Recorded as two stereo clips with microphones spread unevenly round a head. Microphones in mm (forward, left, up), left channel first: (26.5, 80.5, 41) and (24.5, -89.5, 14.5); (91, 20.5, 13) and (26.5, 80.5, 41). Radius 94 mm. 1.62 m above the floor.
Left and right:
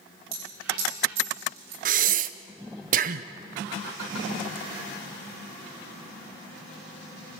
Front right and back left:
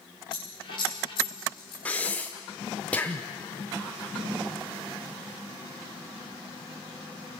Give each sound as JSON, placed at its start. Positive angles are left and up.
{"t": 0.3, "sound": "a dropped coin", "azimuth_deg": -105, "distance_m": 9.5}
{"t": 1.9, "sound": "breathing", "azimuth_deg": -135, "distance_m": 0.6}